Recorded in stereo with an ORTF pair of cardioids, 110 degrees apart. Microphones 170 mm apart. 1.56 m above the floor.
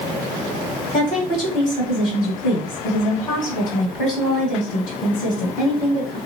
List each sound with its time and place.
0.9 s a woman speaking: 55° left, 1.4 m